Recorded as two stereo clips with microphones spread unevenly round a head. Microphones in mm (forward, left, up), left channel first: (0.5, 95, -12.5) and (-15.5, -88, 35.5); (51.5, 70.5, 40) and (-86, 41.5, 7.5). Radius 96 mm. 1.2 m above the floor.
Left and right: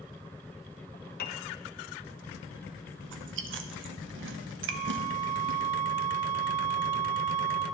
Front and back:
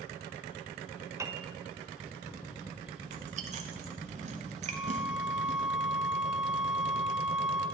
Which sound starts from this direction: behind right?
Chewing, at 3.0 s.